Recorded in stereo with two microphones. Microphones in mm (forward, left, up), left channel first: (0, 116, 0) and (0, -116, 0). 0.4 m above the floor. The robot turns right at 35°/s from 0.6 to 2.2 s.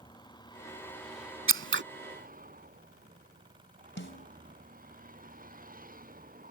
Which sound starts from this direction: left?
A snare drum, at 4.0 s.